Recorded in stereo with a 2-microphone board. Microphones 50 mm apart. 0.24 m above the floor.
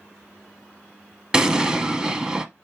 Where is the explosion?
15° right (ahead or behind), 0.7 m.